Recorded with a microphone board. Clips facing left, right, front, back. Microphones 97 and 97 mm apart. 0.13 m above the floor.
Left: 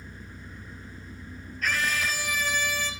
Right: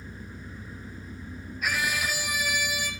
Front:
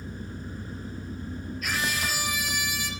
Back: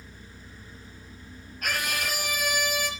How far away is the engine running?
About 1.2 m.